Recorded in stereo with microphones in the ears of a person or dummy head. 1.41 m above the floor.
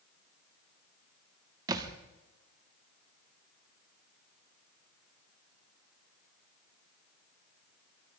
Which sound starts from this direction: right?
A thud, at 1.7 s.